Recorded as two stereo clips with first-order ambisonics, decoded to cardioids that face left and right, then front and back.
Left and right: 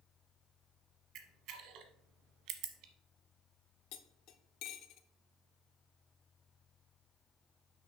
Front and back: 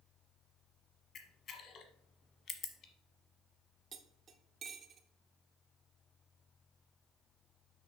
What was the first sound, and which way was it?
A camera shutter, 55° right.